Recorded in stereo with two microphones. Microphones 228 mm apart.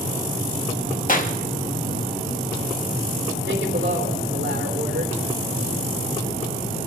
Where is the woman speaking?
60° right (ahead or behind), 3.5 m.